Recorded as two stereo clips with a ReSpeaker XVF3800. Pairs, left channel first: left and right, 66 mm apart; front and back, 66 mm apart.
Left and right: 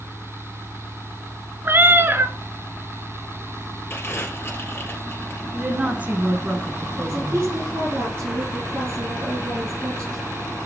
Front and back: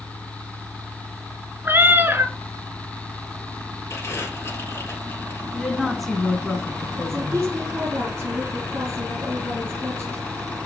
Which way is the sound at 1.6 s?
135° right.